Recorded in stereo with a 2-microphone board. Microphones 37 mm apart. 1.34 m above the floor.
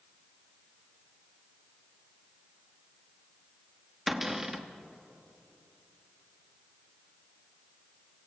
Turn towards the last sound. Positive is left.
turn(degrees=-10)  # may be behind; listen again after turning